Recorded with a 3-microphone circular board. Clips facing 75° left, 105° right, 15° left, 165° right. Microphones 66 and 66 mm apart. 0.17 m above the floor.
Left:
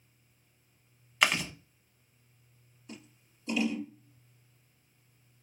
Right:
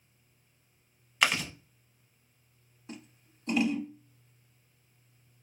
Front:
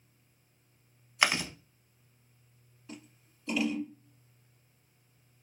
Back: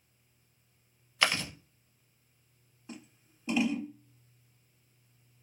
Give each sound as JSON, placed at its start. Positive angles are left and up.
{"t": 1.2, "sound": "chewing", "azimuth_deg": -15, "distance_m": 0.5}
{"t": 2.9, "sound": "scissors", "azimuth_deg": -105, "distance_m": 1.3}